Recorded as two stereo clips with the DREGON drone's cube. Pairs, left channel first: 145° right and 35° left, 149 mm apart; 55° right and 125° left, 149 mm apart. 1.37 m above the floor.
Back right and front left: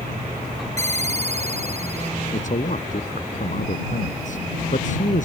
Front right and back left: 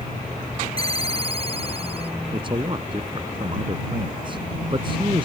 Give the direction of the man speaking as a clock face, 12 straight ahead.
6 o'clock.